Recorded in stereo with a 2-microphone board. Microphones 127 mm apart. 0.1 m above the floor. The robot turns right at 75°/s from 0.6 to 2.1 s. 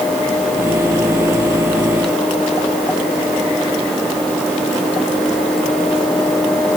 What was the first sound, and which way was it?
Only background noise.